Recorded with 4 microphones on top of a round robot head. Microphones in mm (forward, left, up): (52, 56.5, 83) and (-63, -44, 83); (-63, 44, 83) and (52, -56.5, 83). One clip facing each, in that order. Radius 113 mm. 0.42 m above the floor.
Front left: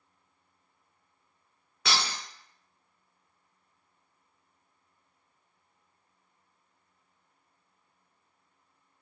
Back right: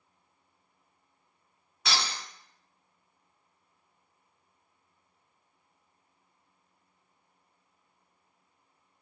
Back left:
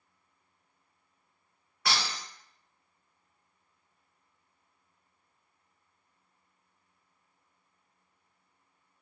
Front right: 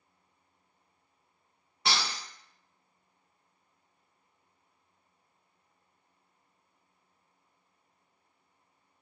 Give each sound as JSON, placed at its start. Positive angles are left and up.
{"t": 1.9, "sound": "breaking glass", "azimuth_deg": 30, "distance_m": 1.4}